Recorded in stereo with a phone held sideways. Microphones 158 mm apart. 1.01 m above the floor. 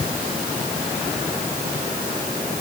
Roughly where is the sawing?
No sawing in this recording.